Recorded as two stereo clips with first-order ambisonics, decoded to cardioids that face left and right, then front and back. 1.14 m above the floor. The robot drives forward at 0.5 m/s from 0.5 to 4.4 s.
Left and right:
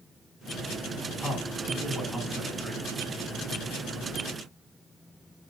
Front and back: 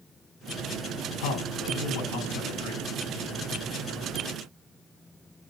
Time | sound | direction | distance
1.2 | a man speaking | 5° right | 7.5 m